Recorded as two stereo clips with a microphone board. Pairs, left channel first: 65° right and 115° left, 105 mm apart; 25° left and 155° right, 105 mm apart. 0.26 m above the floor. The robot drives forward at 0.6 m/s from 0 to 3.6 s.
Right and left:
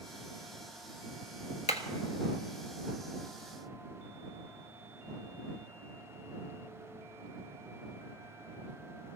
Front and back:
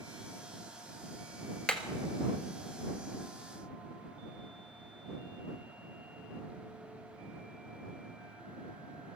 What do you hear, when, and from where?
1.7 s hammering: 60° right, 1.4 m